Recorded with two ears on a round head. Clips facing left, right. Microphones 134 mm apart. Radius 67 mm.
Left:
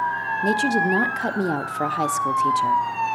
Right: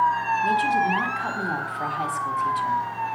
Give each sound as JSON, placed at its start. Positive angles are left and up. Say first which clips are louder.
{"t": 0.4, "sound": "a woman speaking", "louder": "left 2 dB", "side_deg": 55, "distance_m": 0.8}